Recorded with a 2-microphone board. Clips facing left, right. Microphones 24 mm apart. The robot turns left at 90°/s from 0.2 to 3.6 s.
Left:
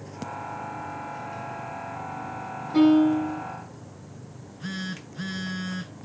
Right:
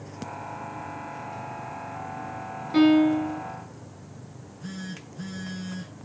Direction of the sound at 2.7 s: 110° right.